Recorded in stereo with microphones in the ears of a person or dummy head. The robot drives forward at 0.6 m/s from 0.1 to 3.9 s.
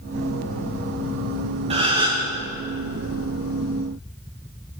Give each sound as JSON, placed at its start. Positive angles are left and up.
{"t": 1.7, "sound": "a gasp", "side_deg": -30, "distance_m": 1.0}